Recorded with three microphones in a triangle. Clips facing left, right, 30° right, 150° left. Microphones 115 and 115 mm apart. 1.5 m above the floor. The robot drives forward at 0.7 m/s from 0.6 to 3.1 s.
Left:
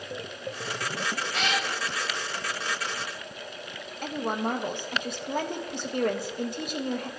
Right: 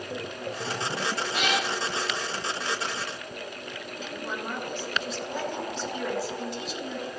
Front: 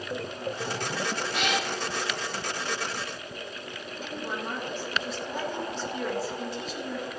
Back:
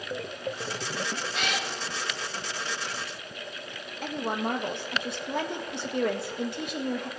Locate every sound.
1.3 s a cat meowing: 20° right, 6.5 m
4.0 s a woman speaking: 125° left, 1.8 m